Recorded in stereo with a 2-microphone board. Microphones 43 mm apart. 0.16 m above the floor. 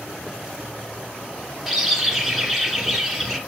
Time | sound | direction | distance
1.7 | a bird | centre (ahead or behind) | 1.7 m